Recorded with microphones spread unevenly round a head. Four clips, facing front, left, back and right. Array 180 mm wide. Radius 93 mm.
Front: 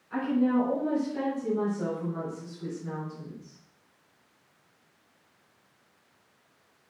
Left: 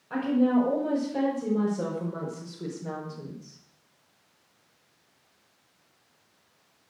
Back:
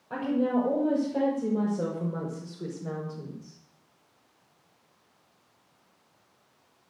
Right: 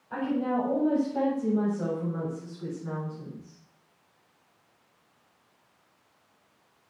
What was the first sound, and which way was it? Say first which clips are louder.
A woman speaking: left 5 dB, front 1 dB; 160° left.